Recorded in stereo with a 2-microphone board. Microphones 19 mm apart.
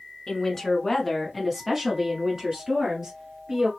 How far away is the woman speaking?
About 1.4 m.